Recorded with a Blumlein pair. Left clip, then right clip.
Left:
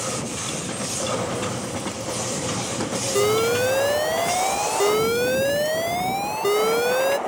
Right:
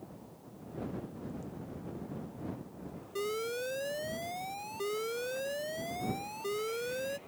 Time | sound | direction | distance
3.1 | an alarm | 35° left | ?